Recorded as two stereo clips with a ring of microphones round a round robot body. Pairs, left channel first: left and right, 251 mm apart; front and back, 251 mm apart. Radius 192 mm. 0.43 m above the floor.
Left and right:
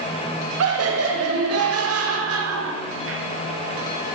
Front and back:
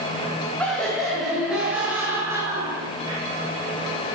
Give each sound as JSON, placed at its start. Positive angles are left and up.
{"t": 0.6, "sound": "laughter", "azimuth_deg": -85, "distance_m": 3.0}